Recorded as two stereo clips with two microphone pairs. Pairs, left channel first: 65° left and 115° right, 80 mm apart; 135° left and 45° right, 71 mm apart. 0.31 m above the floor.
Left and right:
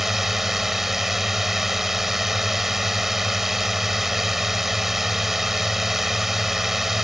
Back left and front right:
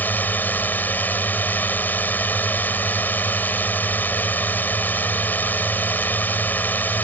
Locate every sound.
0.0 s a drone: 165° left